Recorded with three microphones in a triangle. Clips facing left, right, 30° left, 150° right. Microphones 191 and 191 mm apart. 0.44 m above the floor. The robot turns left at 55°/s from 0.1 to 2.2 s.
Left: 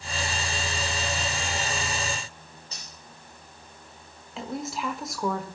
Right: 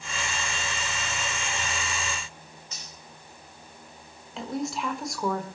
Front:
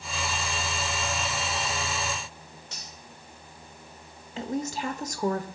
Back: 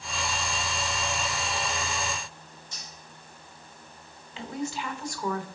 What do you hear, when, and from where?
2.7 s cutlery clinking: 35° left, 6.5 m
4.4 s a woman speaking: straight ahead, 1.4 m